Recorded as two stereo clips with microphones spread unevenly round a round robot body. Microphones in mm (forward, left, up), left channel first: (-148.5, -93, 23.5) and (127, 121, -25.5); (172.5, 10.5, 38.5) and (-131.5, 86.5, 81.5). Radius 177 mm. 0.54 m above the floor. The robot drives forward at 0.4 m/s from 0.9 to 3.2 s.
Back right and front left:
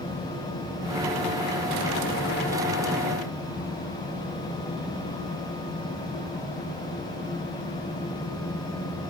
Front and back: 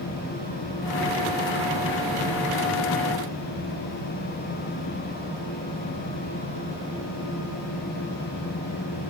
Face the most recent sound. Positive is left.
No sound to turn to.